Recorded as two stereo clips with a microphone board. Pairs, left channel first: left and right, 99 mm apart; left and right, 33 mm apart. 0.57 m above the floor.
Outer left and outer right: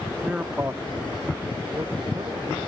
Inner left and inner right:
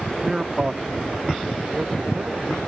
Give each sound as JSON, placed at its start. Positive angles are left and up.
{"t": 0.2, "sound": "a man speaking", "side_deg": -5}